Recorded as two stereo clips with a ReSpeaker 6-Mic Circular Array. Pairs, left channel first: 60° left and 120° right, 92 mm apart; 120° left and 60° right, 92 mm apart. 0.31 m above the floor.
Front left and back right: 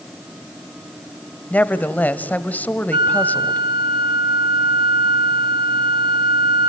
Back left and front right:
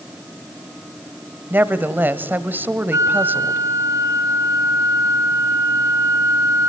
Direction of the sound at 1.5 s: 5° right.